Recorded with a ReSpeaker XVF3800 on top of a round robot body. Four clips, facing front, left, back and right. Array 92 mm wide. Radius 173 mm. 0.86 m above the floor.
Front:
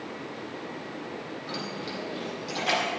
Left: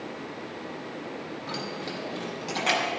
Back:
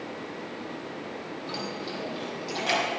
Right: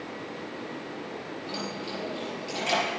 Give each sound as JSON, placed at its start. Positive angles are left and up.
{"t": 1.5, "sound": "keys jangling", "azimuth_deg": 85, "distance_m": 4.5}